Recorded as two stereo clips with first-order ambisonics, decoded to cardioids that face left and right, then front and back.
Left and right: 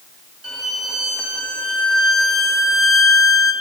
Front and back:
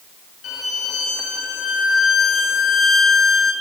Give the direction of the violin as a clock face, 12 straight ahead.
1 o'clock.